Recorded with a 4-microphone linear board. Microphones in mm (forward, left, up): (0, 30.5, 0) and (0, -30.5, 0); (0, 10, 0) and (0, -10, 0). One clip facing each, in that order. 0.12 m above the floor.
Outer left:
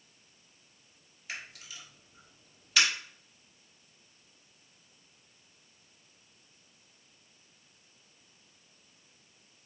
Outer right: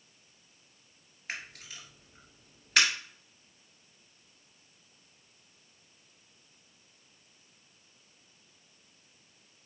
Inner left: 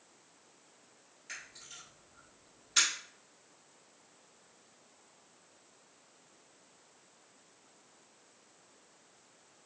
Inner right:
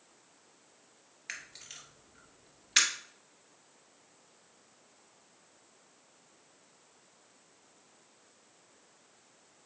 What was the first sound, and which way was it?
A camera shutter, 45° right (ahead or behind).